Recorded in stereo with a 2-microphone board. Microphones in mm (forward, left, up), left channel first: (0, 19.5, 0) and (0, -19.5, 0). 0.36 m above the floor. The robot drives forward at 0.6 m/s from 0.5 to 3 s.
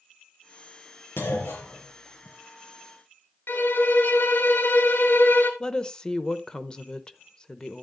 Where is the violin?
65° left (ahead or behind), 1.3 m.